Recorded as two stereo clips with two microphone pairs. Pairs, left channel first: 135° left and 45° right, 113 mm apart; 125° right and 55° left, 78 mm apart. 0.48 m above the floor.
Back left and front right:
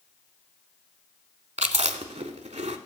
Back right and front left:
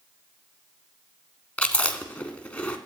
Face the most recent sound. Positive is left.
turn(degrees=-55)